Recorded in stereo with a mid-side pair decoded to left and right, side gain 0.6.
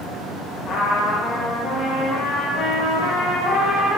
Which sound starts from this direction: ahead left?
A trumpet, at 0.7 s.